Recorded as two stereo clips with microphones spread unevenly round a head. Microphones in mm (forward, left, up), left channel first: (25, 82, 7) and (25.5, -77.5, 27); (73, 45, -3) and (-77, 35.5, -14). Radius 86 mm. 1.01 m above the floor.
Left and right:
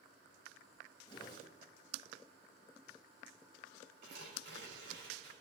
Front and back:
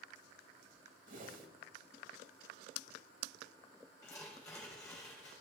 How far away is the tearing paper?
About 3.5 m.